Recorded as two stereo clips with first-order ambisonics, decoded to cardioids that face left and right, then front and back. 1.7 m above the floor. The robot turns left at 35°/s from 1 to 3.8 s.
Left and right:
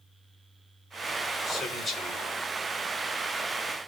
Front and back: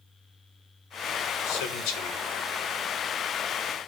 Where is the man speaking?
10° left, 1.2 m; by 2.2 s 15° right, 1.2 m.